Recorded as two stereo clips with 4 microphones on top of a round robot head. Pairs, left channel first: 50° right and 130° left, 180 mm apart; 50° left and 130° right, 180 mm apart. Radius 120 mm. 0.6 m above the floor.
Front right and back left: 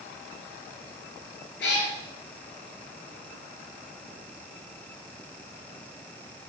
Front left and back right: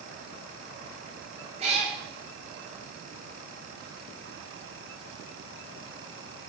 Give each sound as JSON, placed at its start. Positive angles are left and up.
{"t": 1.6, "sound": "a cat meowing", "azimuth_deg": -75, "distance_m": 3.5}